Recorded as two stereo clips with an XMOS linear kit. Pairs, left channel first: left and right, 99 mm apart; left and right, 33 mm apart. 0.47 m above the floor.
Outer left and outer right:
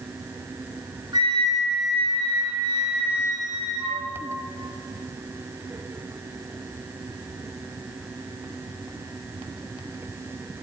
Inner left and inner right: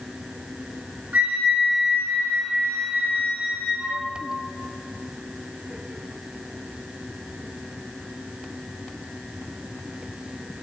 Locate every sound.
1.1 s a flute: 45° right (ahead or behind), 3 m